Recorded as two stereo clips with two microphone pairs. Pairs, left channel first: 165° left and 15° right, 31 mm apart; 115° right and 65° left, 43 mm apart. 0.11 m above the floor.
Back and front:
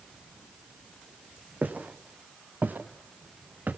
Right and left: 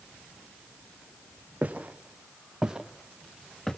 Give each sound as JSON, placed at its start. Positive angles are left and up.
{"t": 1.6, "sound": "footsteps", "azimuth_deg": 5, "distance_m": 2.0}